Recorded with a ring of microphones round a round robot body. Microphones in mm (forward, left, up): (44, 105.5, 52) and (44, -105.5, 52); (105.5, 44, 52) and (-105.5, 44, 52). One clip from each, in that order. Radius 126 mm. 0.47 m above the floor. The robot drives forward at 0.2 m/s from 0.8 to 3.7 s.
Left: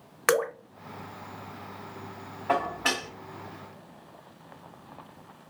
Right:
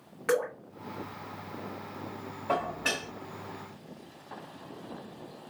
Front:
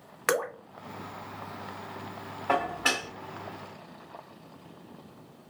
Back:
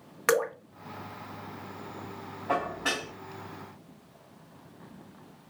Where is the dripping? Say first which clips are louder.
Left 4 dB, back 2 dB; 90° left, 0.7 m.